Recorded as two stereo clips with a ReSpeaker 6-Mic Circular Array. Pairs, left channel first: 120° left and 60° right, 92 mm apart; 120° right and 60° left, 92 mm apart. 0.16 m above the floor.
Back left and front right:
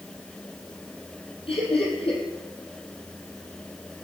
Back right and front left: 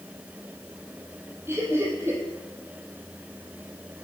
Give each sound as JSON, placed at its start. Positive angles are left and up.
{"t": 1.5, "sound": "laughter", "azimuth_deg": 125, "distance_m": 5.5}